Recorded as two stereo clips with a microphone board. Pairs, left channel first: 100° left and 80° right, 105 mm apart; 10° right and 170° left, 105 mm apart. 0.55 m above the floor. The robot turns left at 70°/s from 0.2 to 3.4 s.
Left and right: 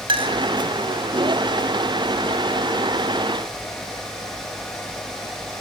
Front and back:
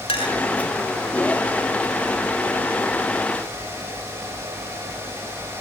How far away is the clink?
About 2 m.